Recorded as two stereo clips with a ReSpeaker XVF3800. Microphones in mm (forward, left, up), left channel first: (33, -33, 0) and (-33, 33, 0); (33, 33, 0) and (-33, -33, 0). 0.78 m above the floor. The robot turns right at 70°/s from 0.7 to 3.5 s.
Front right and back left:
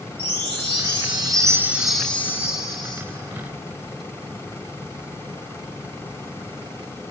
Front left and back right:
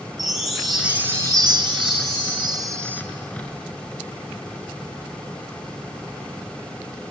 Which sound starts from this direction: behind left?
A chime, at 0.2 s.